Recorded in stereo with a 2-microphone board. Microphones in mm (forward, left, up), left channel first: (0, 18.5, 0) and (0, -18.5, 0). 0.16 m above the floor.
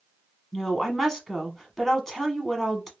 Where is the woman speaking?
10° left (ahead or behind), 1.0 m.